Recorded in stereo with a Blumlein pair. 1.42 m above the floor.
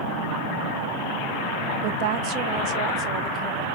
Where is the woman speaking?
45° right, 0.6 m; by 3.6 s 35° right, 2 m.